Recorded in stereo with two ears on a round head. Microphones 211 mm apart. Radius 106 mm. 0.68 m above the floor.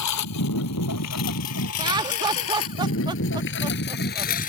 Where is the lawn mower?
80° left; by 4.5 s 35° left (ahead or behind).